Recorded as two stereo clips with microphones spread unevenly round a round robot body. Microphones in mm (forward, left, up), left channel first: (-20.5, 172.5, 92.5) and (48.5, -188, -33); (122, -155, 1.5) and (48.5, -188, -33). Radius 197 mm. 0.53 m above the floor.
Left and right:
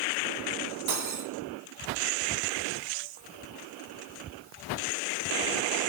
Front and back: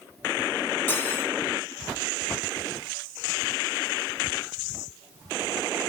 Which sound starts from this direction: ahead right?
Cutlery clinking, at 0.9 s.